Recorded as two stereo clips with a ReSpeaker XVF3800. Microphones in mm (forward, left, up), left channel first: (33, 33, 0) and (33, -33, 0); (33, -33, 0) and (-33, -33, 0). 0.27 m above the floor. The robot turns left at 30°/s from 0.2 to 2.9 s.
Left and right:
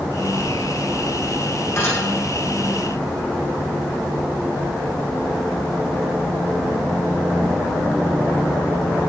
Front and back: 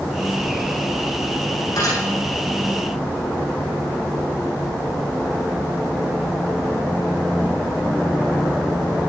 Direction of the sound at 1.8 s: 35° left.